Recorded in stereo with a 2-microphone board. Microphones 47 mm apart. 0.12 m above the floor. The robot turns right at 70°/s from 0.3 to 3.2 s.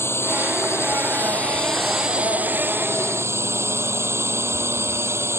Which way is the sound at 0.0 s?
70° left.